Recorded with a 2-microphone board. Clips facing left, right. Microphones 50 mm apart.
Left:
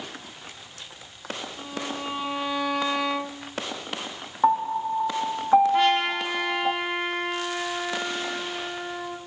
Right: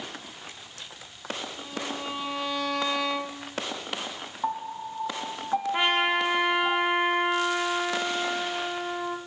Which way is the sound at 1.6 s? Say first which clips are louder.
Left 2 dB; 15° left (ahead or behind).